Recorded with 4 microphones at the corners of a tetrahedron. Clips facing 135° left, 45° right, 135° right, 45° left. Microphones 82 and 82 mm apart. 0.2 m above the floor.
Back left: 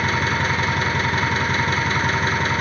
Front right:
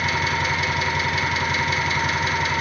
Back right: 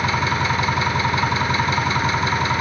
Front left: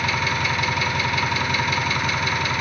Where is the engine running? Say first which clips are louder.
Back left 2 dB, back right 3 dB; 170° left, 1.5 m.